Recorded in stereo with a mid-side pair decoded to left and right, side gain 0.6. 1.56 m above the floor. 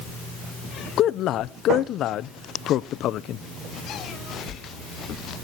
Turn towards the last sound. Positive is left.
turn(degrees=55)